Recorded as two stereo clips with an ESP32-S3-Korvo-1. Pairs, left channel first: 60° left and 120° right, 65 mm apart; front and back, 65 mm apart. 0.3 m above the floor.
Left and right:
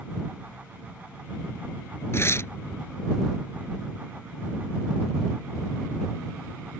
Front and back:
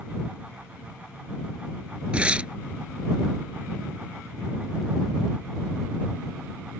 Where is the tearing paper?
110° left.